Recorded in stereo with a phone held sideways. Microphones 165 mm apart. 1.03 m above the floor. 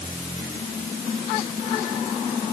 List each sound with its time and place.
Only background noise.